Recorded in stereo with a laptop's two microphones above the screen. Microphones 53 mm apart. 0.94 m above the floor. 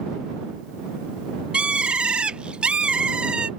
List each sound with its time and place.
1.5 s a bird: 20° right (ahead or behind)